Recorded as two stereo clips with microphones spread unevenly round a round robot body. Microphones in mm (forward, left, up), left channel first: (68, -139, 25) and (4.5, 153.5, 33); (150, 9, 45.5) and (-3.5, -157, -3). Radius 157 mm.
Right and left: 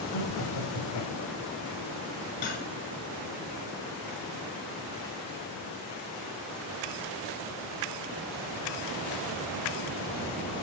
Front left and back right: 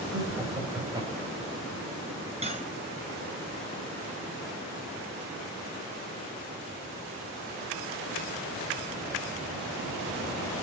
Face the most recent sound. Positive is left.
turn(degrees=-70)